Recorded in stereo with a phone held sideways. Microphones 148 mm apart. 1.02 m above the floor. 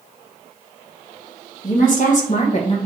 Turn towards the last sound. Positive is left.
turn(degrees=40)  # may be behind; listen again after turning